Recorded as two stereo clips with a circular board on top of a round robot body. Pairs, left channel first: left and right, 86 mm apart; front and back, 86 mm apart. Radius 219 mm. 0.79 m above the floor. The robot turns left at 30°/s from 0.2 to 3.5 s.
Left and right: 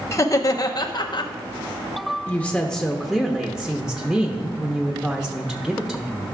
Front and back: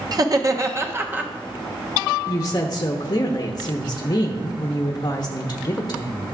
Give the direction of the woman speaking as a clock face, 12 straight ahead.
11 o'clock.